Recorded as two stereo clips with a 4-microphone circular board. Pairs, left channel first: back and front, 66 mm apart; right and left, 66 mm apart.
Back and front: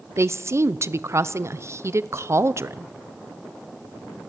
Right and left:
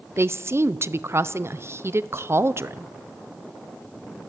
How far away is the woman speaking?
About 0.8 m.